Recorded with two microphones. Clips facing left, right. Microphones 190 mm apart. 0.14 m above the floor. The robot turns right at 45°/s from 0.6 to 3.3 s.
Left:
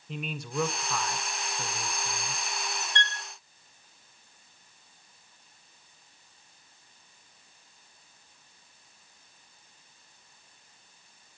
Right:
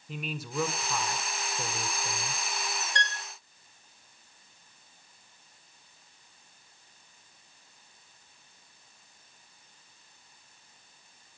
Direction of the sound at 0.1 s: 175° right.